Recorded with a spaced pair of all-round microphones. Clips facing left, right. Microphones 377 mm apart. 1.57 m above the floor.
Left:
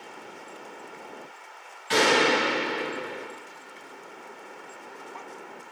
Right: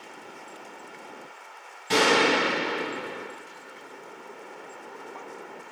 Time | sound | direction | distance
1.9 | a gunshot | 55° right (ahead or behind) | 1.2 m